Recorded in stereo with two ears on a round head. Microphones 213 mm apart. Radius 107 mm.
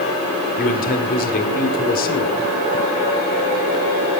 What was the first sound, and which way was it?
A man speaking, 40° left (ahead or behind).